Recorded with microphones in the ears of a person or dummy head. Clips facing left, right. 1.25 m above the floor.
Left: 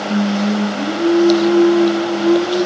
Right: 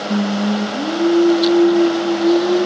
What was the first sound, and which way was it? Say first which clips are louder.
Singing: left 1 dB; 10° right (ahead or behind).